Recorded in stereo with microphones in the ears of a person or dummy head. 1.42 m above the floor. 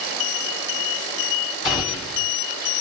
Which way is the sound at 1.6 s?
25° left (ahead or behind).